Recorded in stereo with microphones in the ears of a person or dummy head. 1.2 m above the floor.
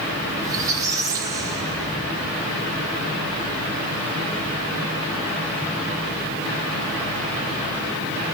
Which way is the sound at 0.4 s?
25° right (ahead or behind).